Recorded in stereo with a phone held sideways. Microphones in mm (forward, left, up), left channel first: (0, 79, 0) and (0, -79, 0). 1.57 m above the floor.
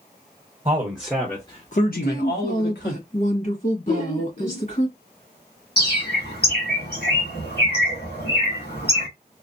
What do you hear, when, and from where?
0.7 s a man speaking: 25° right (ahead or behind), 1.1 m; by 3.0 s 80° left, 1.7 m
1.9 s a woman speaking: 50° left (ahead or behind), 1.7 m
3.9 s laughter: 60° left (ahead or behind), 1.2 m
5.8 s a bird: 70° left (ahead or behind), 1.8 m